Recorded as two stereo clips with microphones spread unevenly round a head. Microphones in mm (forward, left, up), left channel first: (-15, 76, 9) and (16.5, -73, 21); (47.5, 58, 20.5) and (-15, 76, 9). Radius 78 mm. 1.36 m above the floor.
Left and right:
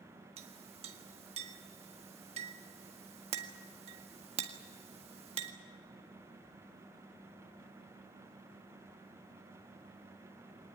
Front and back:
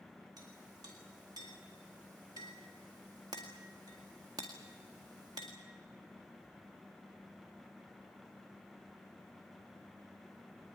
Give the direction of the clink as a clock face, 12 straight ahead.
4 o'clock.